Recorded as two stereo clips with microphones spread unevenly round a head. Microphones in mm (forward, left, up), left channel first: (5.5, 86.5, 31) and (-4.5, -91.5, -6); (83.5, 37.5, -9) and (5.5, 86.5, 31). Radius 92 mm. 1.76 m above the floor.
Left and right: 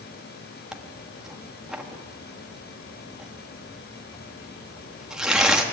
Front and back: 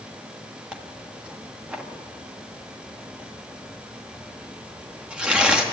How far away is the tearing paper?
About 1.3 m.